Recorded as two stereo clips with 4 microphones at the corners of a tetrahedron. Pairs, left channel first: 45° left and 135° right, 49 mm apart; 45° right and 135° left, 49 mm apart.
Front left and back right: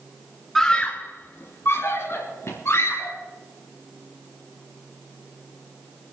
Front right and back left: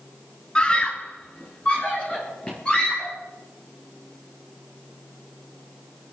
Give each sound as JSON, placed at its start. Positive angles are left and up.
{"t": 0.6, "sound": "a scream", "azimuth_deg": -25, "distance_m": 1.1}